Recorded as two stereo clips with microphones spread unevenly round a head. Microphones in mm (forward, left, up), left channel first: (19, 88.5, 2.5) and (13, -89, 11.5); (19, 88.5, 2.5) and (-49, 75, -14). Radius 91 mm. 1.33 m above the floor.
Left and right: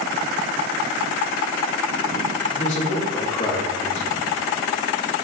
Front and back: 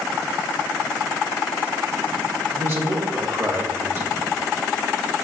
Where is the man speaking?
140° left, 2 m.